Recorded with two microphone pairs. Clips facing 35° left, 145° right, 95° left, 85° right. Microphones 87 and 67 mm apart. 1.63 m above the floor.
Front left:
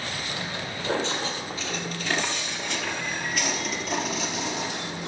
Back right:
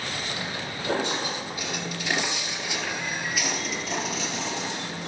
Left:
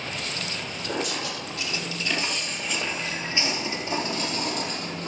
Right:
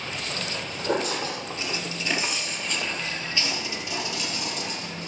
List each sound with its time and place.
0.3 s footsteps: 70° right, 3 m; by 5.1 s 120° left, 3 m